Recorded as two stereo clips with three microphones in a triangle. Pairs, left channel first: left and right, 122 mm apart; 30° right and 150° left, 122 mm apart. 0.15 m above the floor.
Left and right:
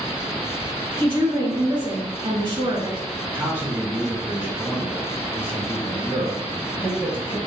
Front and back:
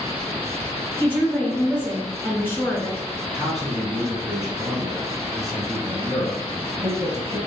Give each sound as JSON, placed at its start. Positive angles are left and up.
{"t": 1.0, "sound": "a woman speaking", "azimuth_deg": -95, "distance_m": 1.8}
{"t": 3.3, "sound": "a man speaking", "azimuth_deg": -130, "distance_m": 1.1}